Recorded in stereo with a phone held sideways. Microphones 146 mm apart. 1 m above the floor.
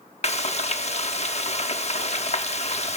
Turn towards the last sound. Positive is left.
turn(degrees=50)  # may be behind; listen again after turning